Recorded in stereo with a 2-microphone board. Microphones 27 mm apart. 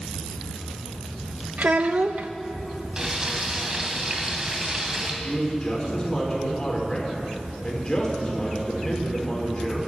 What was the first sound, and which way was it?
A child speaking, 70° right (ahead or behind).